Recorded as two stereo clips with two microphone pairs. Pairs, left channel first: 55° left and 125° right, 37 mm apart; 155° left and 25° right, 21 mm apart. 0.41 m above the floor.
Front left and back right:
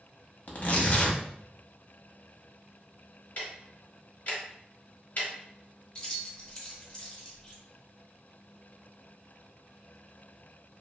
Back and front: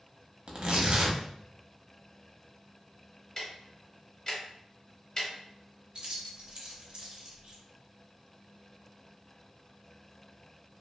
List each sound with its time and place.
0.5 s tearing paper: 15° left, 0.6 m
3.4 s ticking: 100° left, 0.7 m
6.0 s keys jangling: straight ahead, 0.8 m